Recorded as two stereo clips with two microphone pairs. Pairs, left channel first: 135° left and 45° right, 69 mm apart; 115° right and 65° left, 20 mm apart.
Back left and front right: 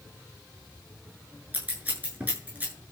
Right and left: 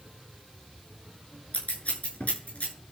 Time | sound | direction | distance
1.5 | scissors | 105° right | 7 m